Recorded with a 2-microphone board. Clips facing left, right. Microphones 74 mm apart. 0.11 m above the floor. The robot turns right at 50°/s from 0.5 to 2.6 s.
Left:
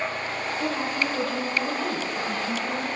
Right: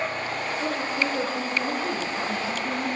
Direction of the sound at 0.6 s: 45° left.